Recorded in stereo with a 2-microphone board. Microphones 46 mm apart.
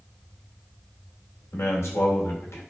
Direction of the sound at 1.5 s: 75° left (ahead or behind).